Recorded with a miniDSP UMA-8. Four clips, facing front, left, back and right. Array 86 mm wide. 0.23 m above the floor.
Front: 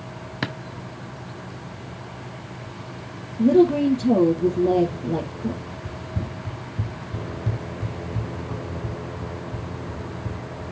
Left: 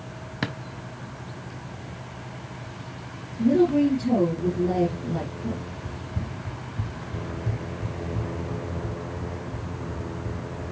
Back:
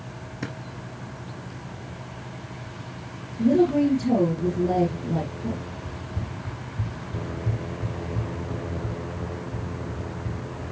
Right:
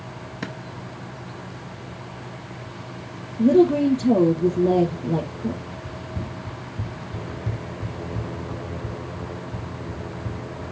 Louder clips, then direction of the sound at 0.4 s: Left 3 dB, front 5 dB; 25° left.